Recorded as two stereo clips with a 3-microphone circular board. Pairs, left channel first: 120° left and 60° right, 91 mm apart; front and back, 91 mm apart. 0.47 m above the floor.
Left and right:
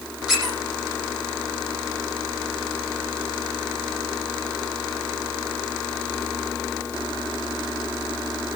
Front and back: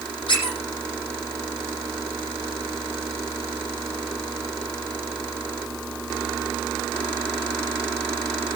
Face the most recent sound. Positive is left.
turn(degrees=25)